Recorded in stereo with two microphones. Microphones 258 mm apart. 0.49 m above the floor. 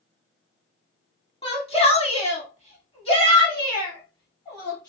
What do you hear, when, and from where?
1.4 s a shout: 20° left (ahead or behind), 1.5 m; by 4.9 s 10° left (ahead or behind), 2 m